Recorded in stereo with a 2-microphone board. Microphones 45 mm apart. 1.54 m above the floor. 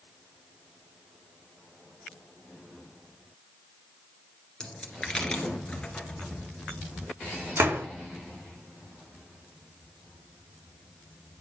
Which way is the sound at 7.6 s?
75° right (ahead or behind).